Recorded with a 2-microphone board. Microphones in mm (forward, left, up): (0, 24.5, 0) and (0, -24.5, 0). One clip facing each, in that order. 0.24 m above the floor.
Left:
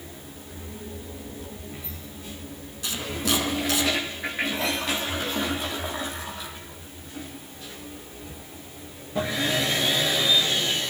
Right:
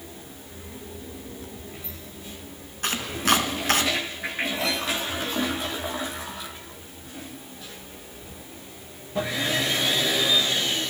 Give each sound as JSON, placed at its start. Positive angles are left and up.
{"t": 2.8, "sound": "chopping", "side_deg": -50, "distance_m": 3.0}